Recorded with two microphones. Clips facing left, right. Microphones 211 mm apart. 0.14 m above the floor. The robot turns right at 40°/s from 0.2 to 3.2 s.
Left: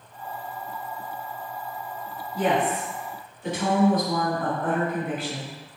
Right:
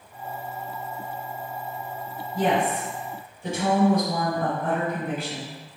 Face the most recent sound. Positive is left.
turn(degrees=-15)